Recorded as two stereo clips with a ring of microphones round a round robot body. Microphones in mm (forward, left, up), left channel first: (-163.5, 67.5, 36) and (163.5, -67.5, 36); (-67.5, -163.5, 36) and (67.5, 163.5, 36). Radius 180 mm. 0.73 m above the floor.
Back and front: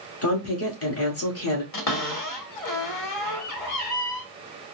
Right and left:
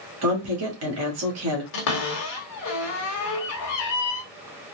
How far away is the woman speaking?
About 1.8 m.